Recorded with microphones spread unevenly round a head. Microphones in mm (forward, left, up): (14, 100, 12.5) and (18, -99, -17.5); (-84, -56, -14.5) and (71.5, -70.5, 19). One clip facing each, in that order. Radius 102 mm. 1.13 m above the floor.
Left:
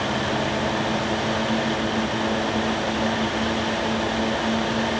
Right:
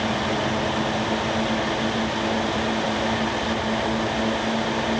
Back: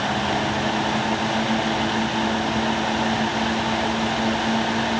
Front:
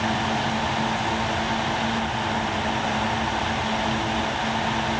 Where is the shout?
No shout in this recording.